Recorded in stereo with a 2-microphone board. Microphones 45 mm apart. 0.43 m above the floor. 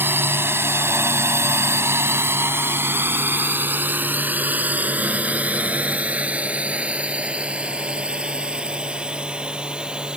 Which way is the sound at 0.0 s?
55° right (ahead or behind).